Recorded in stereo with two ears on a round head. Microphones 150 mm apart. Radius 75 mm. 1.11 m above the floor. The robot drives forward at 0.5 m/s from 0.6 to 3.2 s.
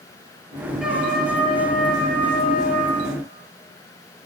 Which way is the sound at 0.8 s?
Centre (ahead or behind).